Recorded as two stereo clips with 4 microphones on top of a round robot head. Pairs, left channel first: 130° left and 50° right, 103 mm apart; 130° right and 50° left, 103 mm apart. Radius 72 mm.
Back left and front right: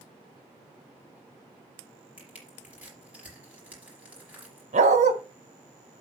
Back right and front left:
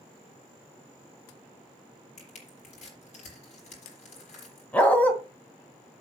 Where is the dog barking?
55° right, 1.8 m.